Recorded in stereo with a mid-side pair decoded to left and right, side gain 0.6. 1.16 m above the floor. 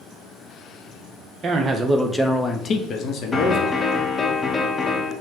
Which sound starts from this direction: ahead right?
A man speaking, at 1.4 s.